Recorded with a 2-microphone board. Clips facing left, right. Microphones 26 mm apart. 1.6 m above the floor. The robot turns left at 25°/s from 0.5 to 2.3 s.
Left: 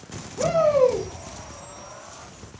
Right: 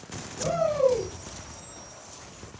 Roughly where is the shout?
Left.